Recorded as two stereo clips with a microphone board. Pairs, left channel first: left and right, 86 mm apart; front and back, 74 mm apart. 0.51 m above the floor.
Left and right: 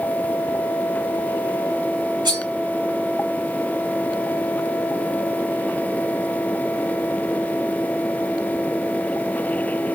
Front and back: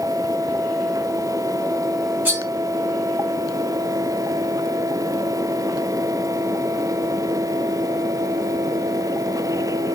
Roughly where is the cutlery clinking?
Behind right.